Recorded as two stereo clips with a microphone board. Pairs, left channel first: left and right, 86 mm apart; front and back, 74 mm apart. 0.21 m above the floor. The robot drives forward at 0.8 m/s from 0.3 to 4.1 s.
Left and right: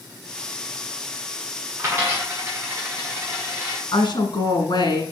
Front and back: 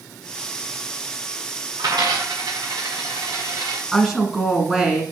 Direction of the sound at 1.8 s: 155° right.